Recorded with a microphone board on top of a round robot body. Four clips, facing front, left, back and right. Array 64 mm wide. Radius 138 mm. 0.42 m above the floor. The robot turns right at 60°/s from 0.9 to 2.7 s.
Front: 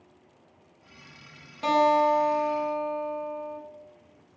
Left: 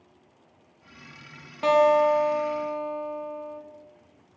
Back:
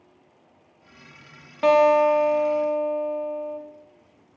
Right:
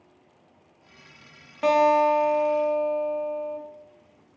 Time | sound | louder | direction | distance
1.6 | a guitar | even, back 5 dB | 175° right | 1.0 m